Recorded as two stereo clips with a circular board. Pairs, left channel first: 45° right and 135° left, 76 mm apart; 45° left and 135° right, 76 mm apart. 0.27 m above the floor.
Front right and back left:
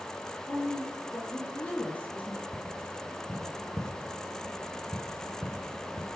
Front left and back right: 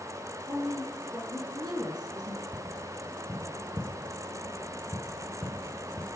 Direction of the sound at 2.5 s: 175° right.